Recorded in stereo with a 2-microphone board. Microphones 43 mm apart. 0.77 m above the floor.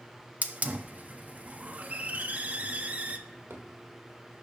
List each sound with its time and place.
0.4 s a hiss: 35° right (ahead or behind), 0.5 m
3.3 s a drawer: 65° right (ahead or behind), 1.3 m